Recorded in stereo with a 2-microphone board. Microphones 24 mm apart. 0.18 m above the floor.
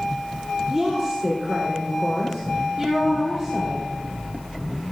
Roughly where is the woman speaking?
Centre.